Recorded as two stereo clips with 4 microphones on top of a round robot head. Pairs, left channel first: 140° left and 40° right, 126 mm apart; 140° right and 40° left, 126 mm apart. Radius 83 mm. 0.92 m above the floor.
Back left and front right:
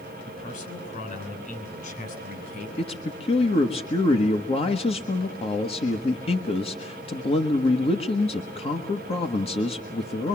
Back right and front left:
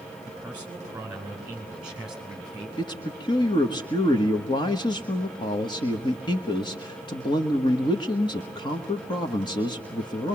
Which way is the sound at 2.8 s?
170° left.